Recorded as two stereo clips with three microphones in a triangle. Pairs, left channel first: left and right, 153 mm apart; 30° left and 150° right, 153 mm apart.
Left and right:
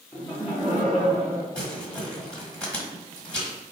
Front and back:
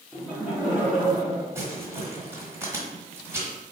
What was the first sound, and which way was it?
Laughter, 130° left.